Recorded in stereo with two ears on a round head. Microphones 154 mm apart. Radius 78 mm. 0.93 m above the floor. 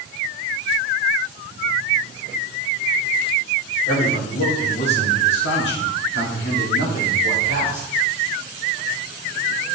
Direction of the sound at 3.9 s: 55° left (ahead or behind).